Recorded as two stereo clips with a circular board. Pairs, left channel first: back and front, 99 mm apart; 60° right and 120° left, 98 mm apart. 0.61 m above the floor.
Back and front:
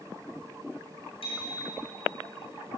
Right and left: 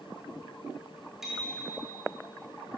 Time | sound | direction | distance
1.2 | a bicycle bell | 155° right | 8 m